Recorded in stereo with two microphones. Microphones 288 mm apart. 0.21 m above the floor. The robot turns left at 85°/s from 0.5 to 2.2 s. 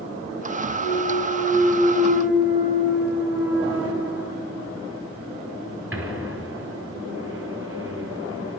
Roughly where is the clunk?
Left.